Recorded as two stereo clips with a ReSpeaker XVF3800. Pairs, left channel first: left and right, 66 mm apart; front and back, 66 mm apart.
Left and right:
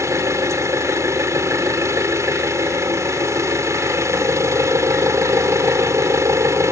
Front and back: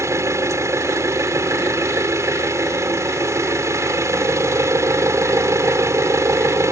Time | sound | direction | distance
0.0 | an engine running | 135° right | ?